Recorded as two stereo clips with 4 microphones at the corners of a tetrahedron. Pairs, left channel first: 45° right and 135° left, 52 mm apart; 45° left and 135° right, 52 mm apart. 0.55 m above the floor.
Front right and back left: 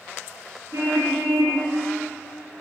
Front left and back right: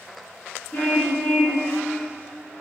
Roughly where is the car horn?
Left.